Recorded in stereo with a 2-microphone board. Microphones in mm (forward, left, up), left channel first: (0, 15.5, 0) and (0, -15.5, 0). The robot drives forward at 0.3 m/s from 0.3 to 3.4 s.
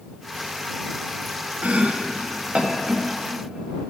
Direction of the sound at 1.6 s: 50° right (ahead or behind).